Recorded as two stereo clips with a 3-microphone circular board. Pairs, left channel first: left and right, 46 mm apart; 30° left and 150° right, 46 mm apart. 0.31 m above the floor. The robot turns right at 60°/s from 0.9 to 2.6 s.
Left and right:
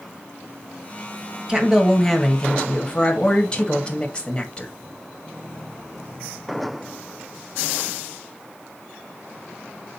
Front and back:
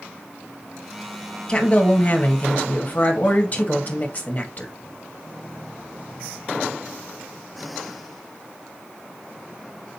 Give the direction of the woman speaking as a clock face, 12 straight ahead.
1 o'clock.